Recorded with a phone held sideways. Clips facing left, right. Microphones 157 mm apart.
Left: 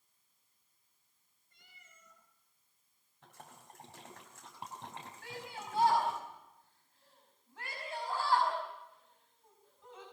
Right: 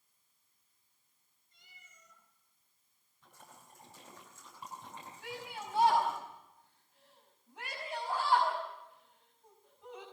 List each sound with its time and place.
1.5 s a cat meowing: 60° left (ahead or behind), 6 m
3.2 s a splash: 80° left, 4.5 m
5.2 s a shout: 20° right (ahead or behind), 5.5 m